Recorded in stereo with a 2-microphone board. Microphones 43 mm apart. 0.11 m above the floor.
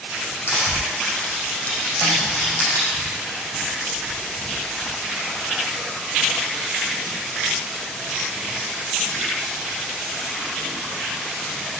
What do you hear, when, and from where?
0.5 s crushing: 60° left (ahead or behind), 5.5 m
2.0 s a snare drum: 50° left (ahead or behind), 5 m